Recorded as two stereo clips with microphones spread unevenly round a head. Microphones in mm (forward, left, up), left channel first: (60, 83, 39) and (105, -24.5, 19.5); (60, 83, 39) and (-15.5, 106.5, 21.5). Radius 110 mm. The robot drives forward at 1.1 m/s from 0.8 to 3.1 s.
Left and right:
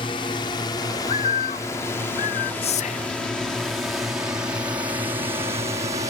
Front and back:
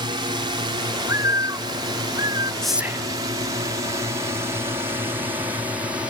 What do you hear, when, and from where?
0.0 s a drone: 175° left; by 6.1 s 125° right
1.0 s a bird: 110° left; by 2.5 s 130° left
2.6 s whispering: 70° left; by 3.2 s 130° left